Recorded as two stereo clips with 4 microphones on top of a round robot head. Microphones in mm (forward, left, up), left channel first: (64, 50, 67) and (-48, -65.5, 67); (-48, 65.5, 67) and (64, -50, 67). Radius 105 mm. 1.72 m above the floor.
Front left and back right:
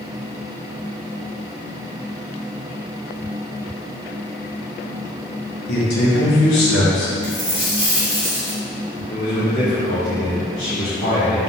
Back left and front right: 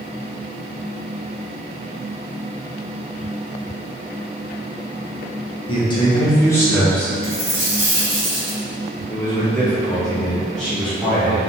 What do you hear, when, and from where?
5.7 s a man speaking: 75° left, 2.5 m; by 7.1 s 50° left, 2.5 m
7.2 s a dropped coin: 15° left, 1.4 m
9.1 s a man speaking: 50° left, 2 m